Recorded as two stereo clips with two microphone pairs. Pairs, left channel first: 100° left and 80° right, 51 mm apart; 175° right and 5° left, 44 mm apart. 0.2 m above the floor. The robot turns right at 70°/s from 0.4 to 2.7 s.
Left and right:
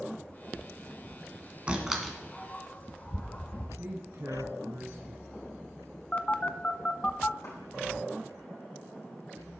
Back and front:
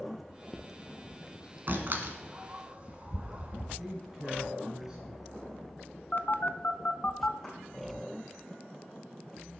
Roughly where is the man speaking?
Ahead right.